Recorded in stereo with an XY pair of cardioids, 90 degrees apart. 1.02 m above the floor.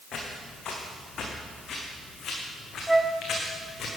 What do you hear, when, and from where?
0.1 s footsteps: 65° left, 4 m
2.9 s a flute: 10° right, 1.1 m